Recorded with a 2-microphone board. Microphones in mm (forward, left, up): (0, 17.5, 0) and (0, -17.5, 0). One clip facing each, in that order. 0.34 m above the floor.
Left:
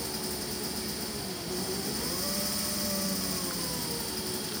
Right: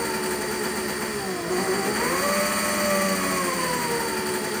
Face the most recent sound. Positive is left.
turn(degrees=-55)  # may be behind; listen again after turning